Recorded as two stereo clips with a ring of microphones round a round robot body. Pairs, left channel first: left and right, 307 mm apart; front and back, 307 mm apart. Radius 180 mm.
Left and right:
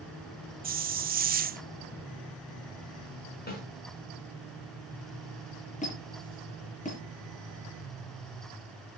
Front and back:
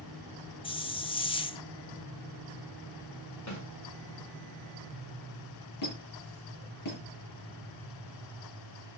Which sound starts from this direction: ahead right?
A hiss, at 0.6 s.